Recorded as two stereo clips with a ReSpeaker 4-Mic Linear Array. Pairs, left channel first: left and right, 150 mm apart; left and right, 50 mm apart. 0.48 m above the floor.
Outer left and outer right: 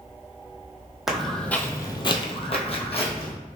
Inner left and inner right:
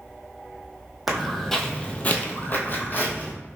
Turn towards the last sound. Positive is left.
turn(degrees=40)  # may be behind; listen again after turning